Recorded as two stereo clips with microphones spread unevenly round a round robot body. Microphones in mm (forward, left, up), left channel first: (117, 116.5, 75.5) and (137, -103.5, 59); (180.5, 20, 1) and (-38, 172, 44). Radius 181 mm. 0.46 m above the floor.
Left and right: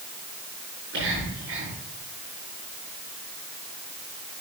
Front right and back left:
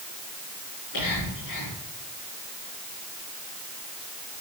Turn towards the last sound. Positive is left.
turn(degrees=-50)